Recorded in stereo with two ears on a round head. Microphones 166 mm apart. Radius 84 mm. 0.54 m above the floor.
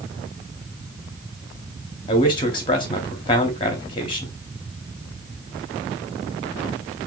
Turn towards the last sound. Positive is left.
turn(degrees=25)  # may be behind; listen again after turning